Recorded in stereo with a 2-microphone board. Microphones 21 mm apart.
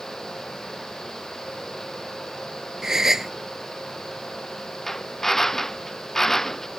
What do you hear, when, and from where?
2.8 s a gasp: 30° right (ahead or behind)
4.9 s a drill: 20° left (ahead or behind)